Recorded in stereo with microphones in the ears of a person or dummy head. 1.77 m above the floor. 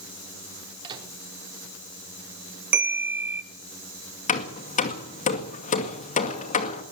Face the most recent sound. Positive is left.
turn(degrees=40)  # may be behind; listen again after turning